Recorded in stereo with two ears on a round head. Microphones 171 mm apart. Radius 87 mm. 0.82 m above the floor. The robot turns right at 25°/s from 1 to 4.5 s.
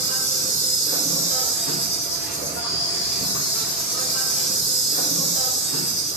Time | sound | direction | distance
0.0 | an insect | 45° left | 1.6 m